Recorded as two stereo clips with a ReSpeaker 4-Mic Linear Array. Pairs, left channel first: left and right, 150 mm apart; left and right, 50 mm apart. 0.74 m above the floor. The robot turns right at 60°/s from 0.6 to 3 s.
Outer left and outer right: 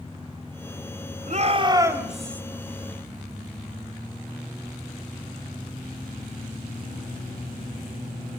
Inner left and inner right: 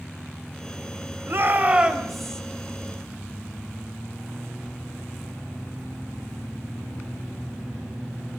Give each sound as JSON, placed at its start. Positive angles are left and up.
{"t": 1.3, "sound": "a shout", "azimuth_deg": -55, "distance_m": 3.0}